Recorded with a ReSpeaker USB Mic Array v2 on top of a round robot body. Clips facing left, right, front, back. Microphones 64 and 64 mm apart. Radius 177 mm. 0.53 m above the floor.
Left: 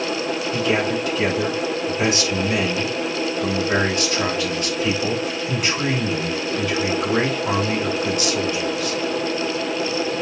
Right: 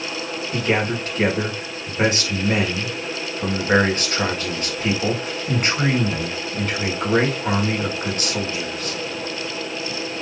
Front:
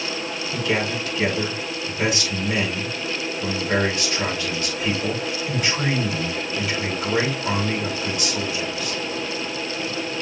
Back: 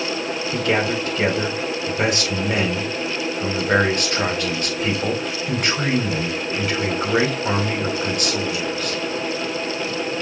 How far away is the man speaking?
About 4.5 m.